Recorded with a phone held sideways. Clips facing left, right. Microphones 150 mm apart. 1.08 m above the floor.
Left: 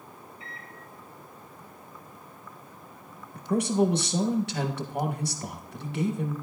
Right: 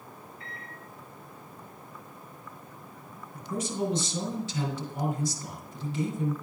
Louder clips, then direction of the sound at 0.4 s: Even; 70° right (ahead or behind).